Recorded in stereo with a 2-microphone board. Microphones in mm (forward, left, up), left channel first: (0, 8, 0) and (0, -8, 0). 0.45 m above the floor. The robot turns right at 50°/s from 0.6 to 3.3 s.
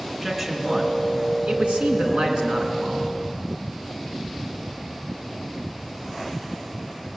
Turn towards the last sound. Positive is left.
turn(degrees=-10)